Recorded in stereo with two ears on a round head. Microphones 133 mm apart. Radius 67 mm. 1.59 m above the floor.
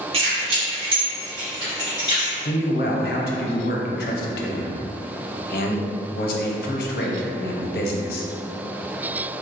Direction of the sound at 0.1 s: 40° right (ahead or behind).